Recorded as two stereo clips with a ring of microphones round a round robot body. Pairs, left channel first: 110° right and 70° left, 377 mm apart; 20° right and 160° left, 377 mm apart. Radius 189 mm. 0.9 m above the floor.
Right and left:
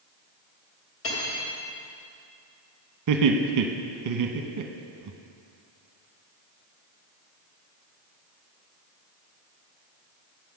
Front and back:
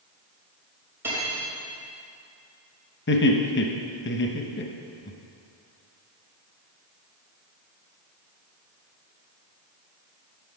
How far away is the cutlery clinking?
About 3 m.